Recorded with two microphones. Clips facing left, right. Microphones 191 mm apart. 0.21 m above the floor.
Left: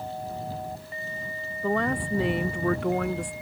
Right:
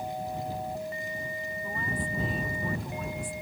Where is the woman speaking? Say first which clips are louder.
Left 12 dB; 70° left (ahead or behind); by 3.3 s 65° left (ahead or behind).